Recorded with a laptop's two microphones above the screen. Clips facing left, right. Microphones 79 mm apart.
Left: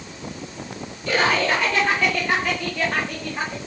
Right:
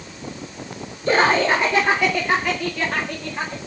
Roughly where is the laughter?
Right.